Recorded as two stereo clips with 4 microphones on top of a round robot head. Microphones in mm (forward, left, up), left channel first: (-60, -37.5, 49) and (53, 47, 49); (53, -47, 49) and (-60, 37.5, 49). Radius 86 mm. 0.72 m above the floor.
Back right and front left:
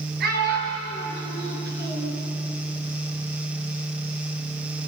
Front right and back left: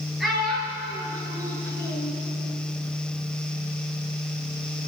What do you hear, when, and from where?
0.2 s a child speaking: 55° left, 7.5 m; by 2.1 s 35° left, 5 m